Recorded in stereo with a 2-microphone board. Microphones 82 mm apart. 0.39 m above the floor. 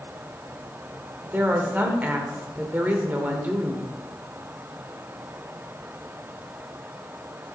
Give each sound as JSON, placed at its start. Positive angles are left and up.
{"t": 1.2, "sound": "a woman speaking", "side_deg": -20, "distance_m": 1.2}